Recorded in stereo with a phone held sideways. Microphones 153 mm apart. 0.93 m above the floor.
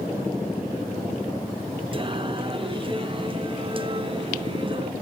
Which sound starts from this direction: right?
Singing, at 1.9 s.